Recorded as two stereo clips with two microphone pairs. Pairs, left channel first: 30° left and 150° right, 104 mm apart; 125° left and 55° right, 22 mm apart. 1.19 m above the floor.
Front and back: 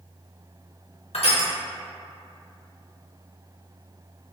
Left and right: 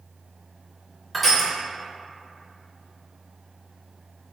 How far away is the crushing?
About 0.7 m.